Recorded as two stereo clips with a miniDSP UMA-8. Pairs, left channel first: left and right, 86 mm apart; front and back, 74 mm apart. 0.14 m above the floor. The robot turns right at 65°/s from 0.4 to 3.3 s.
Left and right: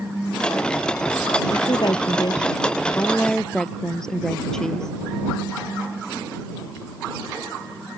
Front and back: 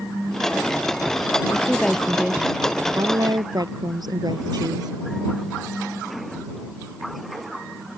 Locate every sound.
1.5 s a woman speaking: 55° left; by 4.9 s 170° left